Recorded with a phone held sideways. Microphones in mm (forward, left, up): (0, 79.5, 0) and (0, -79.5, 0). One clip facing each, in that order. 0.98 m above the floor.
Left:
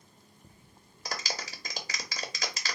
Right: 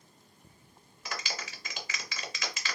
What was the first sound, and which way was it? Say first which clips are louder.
A clap: left 2 dB; 35° left (ahead or behind).